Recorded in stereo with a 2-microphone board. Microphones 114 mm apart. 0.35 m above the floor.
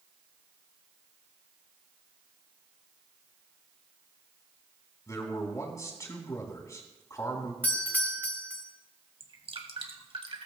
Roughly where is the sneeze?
I don't hear a sneeze.